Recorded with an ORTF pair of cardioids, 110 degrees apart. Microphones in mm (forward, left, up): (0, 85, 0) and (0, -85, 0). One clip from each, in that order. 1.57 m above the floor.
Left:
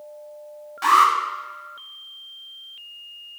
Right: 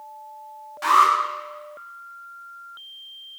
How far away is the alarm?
About 7.5 m.